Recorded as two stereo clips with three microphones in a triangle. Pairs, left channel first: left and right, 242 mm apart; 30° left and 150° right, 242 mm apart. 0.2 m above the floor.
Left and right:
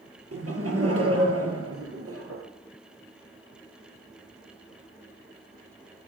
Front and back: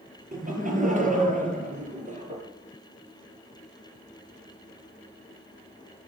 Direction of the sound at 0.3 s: 95° right.